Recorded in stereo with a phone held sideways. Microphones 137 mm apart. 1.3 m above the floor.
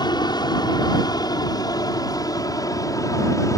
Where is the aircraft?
30° left (ahead or behind); by 3.6 s 25° left (ahead or behind).